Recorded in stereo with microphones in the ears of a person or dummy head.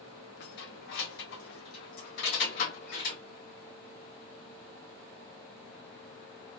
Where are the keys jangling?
65° left (ahead or behind), 1.0 m.